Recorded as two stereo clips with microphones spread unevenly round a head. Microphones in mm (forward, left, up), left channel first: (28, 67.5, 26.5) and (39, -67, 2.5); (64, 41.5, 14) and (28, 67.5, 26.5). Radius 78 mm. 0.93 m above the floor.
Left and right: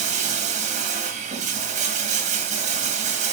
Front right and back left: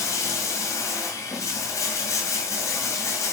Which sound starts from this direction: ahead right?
Running water, at 0.0 s.